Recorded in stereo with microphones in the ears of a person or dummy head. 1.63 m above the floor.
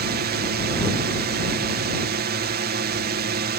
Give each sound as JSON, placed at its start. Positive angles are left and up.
{"t": 0.0, "sound": "a drone", "side_deg": -45}